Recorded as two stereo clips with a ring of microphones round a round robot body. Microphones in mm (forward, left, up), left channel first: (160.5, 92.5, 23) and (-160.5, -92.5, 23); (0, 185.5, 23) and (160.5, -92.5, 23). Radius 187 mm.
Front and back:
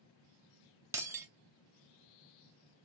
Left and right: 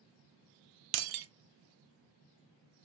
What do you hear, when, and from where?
0.9 s breaking glass: 70° right, 0.6 m